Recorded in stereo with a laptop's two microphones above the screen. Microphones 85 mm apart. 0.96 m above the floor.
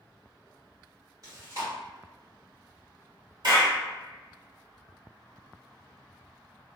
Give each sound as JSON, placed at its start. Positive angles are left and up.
{"t": 1.2, "sound": "chewing", "side_deg": -45, "distance_m": 1.4}
{"t": 3.4, "sound": "a clap", "side_deg": -60, "distance_m": 1.6}